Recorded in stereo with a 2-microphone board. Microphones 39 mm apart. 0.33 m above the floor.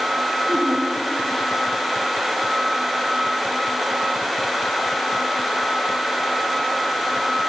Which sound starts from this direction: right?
Laughter, at 0.5 s.